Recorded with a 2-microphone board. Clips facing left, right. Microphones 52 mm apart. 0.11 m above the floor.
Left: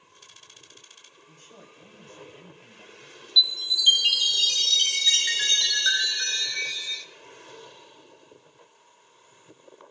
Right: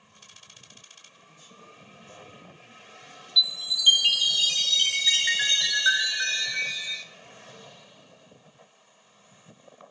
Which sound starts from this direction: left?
A man speaking, at 1.3 s.